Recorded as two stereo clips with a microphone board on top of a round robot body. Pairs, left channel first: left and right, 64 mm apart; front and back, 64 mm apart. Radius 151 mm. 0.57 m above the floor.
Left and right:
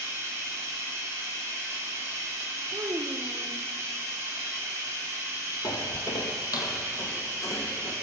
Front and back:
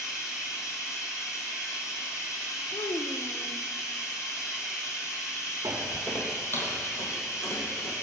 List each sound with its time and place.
0.0 s running water: 40° right, 3.5 m
2.7 s a child speaking: 40° right, 0.9 m
5.6 s footsteps: 120° left, 0.7 m; by 7.9 s 45° left, 3.5 m